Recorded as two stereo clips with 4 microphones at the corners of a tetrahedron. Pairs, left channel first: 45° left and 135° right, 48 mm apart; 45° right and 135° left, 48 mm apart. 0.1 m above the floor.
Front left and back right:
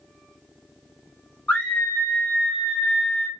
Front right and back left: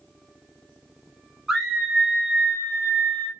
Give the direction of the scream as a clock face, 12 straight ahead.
10 o'clock.